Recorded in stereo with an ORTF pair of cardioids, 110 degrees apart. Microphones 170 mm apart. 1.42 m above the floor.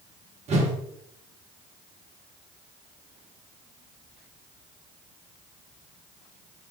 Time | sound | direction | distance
0.5 | a whoosh | 40° right | 1.0 m